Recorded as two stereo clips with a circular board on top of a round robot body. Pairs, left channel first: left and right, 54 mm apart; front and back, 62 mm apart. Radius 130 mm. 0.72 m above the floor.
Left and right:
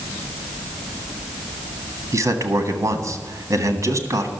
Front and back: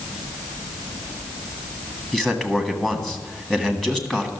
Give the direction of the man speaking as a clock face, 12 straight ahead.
3 o'clock.